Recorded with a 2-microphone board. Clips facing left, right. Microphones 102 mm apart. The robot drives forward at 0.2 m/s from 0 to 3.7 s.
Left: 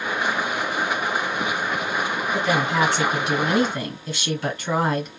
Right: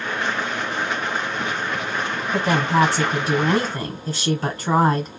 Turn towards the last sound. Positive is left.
turn(degrees=-40)  # may be behind; listen again after turning